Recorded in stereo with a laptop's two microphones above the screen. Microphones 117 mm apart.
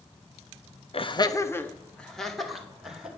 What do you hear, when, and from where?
0.9 s laughter: 55° left (ahead or behind), 1.0 m; by 3.1 s 5° right (ahead or behind), 3 m